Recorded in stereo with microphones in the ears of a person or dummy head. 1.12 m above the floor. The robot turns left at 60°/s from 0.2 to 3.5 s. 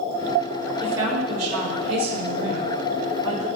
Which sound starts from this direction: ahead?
A woman speaking, at 0.8 s.